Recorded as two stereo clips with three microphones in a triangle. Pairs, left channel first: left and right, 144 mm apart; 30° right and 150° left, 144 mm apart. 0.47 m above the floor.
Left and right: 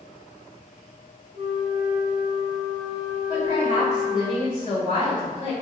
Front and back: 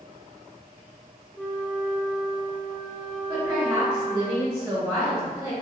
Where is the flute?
110° right, 0.6 m.